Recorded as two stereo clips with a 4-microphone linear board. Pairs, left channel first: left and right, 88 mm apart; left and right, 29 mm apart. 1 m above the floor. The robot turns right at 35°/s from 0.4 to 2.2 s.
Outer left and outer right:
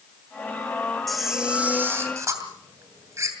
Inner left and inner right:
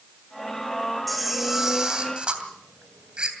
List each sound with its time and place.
1.1 s a camera shutter: straight behind, 2.5 m; by 3.3 s 145° right, 2.5 m